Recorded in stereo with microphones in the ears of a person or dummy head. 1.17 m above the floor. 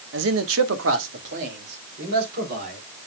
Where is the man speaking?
70° right (ahead or behind), 1.1 m; by 2.8 s 50° right (ahead or behind), 4 m.